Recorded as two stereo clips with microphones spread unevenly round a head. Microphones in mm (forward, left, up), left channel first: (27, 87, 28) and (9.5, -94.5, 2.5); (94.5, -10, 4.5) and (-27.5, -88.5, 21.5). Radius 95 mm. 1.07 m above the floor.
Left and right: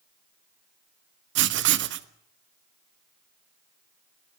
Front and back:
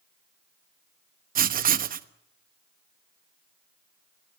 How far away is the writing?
About 1.2 m.